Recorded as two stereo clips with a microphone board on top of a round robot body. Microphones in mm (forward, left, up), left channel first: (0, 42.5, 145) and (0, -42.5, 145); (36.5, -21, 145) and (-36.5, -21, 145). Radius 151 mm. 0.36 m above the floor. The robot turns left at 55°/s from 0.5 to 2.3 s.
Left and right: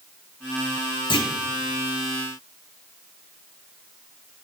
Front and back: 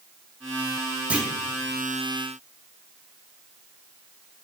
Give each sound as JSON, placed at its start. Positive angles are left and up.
{"t": 1.1, "sound": "a clunk", "azimuth_deg": 110, "distance_m": 1.3}